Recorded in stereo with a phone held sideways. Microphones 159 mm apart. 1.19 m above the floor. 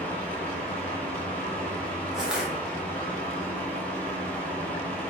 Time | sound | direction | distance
0.0 | a fan | 10° left (ahead or behind) | 0.7 m
2.1 | crushing | 5° right (ahead or behind) | 0.7 m